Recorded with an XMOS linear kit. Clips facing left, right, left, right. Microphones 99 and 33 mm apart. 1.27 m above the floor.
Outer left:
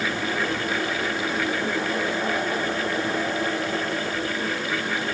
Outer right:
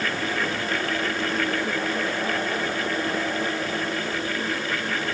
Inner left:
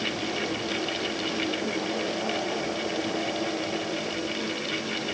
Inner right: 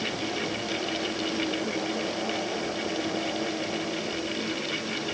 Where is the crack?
I don't hear a crack.